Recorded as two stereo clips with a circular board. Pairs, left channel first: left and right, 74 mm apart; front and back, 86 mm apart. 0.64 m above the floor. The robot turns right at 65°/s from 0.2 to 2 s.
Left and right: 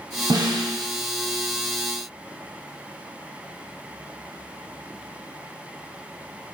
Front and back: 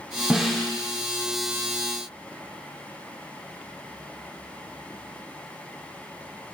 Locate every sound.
0.3 s a snare drum: 100° right, 1.2 m; by 0.7 s 75° right, 1.2 m